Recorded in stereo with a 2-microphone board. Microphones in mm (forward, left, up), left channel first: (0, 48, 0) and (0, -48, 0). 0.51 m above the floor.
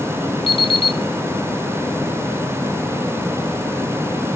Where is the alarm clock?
65° left (ahead or behind), 1.9 m.